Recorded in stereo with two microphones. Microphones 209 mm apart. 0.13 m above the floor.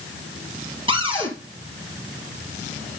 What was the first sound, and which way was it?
A cupboard door, 25° right (ahead or behind).